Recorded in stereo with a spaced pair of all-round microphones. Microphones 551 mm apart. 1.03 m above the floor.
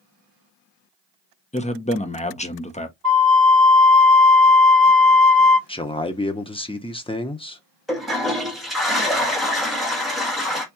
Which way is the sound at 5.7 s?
10° left (ahead or behind).